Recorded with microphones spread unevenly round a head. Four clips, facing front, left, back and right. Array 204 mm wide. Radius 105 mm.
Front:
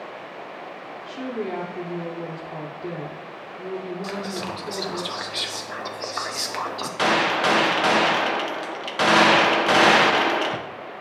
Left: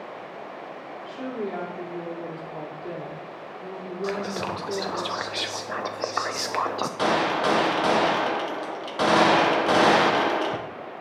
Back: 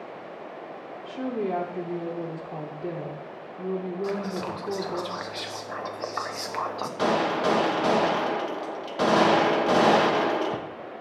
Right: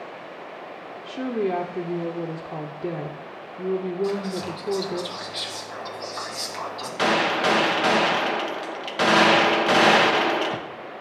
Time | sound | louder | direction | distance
1.1 | a woman speaking | right 6 dB, back 1 dB | 105° right | 0.8 m
4.0 | whispering | right 1 dB, even | 70° left | 0.9 m
7.0 | a gunshot | right 2 dB, front 3 dB | straight behind | 0.7 m